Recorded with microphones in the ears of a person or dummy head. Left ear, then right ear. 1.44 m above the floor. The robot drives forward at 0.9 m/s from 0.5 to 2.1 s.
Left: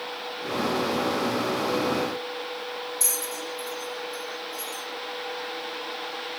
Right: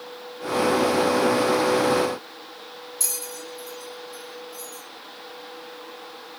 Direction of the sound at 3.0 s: 30° right (ahead or behind).